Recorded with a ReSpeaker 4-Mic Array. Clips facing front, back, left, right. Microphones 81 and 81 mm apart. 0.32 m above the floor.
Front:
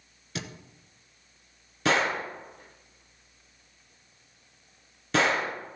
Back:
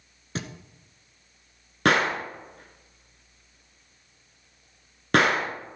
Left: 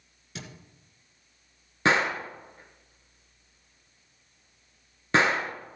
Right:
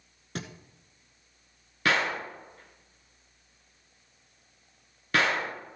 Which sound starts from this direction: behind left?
A gunshot, at 1.9 s.